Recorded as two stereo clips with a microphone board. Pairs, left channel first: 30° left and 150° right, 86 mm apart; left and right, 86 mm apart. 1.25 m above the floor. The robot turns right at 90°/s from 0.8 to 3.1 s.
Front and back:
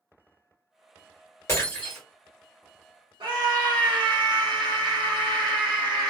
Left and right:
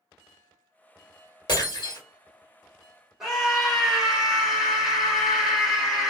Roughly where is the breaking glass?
Left.